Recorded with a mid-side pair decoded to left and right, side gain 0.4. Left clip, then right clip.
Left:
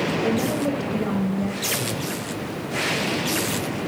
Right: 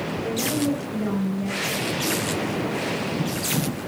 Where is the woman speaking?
45° left, 4.5 m; by 2.2 s 25° left, 6.5 m.